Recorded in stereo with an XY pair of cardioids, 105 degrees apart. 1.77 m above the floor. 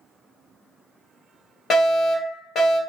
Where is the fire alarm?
50° left, 1.2 m.